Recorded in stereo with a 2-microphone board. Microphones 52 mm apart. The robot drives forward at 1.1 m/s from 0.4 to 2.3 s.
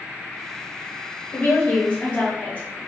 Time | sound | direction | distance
1.3 | a woman speaking | 40° left (ahead or behind) | 1.4 m